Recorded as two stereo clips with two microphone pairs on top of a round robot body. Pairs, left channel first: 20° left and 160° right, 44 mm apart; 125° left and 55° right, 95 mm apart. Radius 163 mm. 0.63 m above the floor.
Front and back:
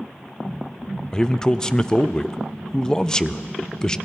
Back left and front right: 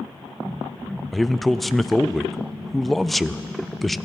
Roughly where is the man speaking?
Ahead left.